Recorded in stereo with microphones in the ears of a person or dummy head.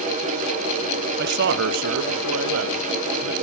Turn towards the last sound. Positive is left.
turn(degrees=-85)